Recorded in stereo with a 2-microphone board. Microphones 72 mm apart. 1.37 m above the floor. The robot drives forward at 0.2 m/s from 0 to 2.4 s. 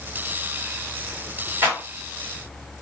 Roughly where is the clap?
Right.